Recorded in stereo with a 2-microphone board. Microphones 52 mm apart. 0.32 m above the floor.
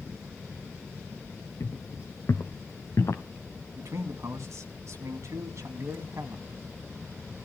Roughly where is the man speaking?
Right.